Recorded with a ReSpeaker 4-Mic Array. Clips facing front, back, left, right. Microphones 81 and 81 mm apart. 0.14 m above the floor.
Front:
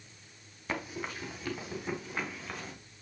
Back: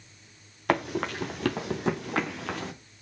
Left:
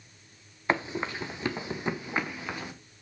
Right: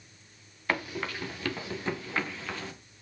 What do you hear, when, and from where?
0.7 s running footsteps: 160° left, 2.5 m; by 2.7 s 165° left, 3.5 m